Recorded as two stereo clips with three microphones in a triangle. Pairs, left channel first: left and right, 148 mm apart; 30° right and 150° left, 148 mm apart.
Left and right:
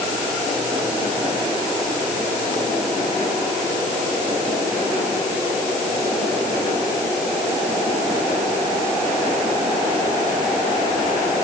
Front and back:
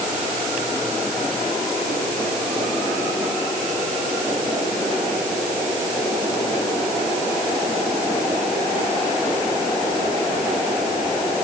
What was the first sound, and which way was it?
Only background noise.